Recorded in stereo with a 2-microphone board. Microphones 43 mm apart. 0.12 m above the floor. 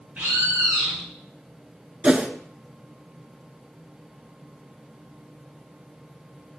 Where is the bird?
35° right (ahead or behind), 2.5 m.